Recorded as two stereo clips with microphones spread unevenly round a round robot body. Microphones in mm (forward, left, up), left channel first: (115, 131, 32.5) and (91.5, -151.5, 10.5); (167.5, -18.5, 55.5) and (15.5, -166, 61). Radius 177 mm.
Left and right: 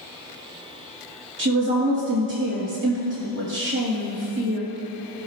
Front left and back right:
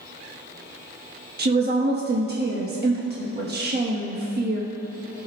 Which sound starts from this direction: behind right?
A woman speaking, at 1.4 s.